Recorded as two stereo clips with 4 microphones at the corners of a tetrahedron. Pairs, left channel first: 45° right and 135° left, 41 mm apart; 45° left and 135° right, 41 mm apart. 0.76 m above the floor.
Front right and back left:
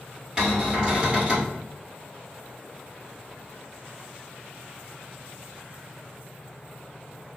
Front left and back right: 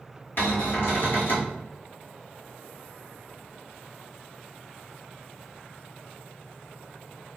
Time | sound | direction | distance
0.4 | a cupboard door | 70° left | 1.7 m